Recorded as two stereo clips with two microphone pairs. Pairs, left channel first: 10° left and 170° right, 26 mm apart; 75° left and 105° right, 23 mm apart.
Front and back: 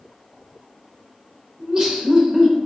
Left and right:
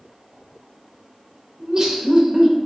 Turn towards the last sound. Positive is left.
turn(degrees=-120)